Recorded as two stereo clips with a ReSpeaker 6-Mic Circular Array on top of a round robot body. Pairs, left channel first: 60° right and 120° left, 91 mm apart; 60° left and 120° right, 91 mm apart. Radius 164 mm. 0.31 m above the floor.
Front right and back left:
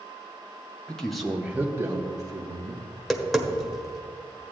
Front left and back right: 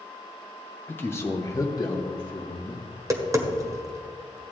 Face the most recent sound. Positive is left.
turn(degrees=-150)